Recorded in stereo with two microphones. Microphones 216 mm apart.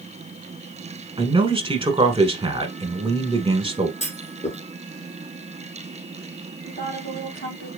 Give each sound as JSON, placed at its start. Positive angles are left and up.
{"t": 1.2, "sound": "a man speaking", "side_deg": -25, "distance_m": 1.1}
{"t": 4.0, "sound": "a clunk", "side_deg": 30, "distance_m": 1.4}
{"t": 6.7, "sound": "a woman speaking", "side_deg": 55, "distance_m": 3.0}